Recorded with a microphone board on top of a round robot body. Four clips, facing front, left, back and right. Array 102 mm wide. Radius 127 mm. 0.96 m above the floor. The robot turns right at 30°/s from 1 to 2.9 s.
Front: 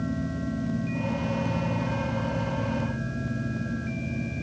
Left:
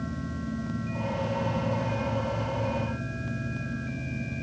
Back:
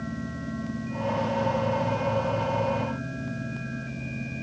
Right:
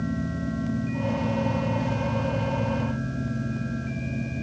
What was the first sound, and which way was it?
Only background noise.